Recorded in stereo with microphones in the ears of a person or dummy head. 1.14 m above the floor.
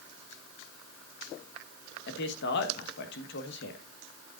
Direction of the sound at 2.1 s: 55° left (ahead or behind).